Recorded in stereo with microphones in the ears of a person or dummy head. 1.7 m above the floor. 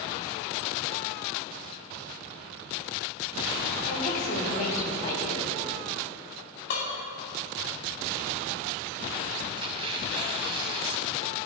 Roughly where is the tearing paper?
Right.